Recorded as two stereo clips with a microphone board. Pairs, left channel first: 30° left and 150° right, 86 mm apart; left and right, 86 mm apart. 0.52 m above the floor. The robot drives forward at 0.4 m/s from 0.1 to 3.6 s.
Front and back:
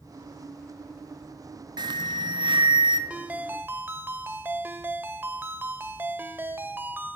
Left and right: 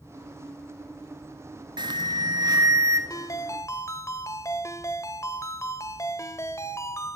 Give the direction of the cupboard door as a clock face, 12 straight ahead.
I don't hear a cupboard door.